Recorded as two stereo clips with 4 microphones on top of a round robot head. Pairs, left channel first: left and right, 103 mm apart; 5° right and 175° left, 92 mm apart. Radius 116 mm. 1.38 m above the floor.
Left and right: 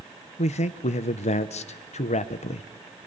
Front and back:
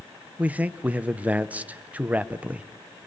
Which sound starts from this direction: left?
A man speaking, at 0.4 s.